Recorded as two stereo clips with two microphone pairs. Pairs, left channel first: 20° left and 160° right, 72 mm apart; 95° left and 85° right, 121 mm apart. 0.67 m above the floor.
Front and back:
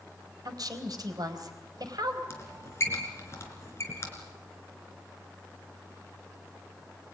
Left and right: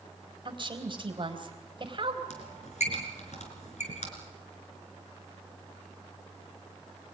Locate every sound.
0.5 s a woman speaking: 130° right, 3.5 m
2.3 s a squeak: 75° left, 4.5 m